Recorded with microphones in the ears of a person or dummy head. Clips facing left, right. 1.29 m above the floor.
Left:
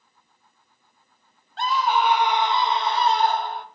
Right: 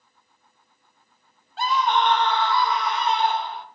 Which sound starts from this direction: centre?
A scream, at 1.6 s.